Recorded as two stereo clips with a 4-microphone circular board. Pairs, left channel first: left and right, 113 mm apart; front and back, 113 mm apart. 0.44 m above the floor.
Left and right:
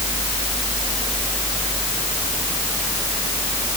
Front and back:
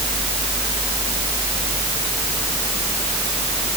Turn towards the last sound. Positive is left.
No sound to turn to.